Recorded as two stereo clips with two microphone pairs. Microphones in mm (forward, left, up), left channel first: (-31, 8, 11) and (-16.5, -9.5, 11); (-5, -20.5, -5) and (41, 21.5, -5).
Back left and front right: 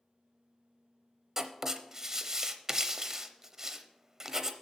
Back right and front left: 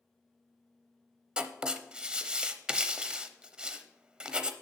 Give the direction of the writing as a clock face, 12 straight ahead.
12 o'clock.